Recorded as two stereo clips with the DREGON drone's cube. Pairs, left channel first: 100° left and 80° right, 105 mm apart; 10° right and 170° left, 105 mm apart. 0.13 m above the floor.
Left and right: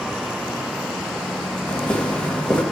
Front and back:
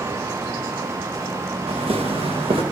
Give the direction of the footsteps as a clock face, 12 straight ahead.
6 o'clock.